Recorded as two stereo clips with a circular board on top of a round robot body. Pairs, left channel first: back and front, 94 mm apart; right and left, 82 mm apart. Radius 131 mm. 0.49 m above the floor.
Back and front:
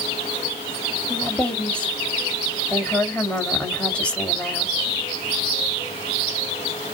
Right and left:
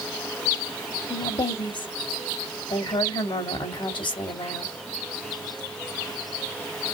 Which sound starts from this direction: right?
A woman speaking, at 1.1 s.